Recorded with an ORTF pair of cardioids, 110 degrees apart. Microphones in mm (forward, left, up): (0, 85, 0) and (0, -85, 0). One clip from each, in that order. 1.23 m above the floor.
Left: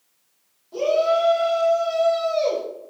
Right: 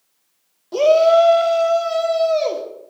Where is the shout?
65° right, 1.4 m; by 2.6 s 25° right, 2 m.